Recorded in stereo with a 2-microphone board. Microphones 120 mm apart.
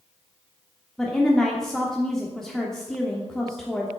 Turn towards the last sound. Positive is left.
turn(degrees=5)  # may be behind; listen again after turning